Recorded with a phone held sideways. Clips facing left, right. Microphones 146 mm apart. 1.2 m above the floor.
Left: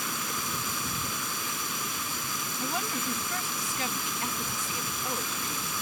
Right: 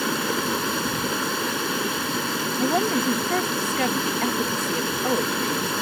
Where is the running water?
75° right (ahead or behind).